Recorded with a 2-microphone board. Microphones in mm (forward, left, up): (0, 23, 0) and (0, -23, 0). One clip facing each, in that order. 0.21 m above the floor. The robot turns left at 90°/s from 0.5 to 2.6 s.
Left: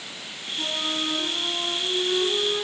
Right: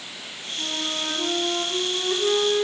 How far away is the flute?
About 4.5 m.